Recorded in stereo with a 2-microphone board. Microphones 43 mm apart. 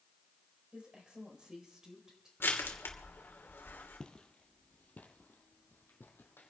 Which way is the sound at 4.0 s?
20° left (ahead or behind).